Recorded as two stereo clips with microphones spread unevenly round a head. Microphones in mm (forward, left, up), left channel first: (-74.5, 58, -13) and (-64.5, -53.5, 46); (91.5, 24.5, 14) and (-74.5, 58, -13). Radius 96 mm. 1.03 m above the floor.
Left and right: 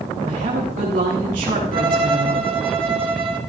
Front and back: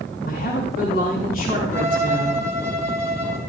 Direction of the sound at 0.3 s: 60° right.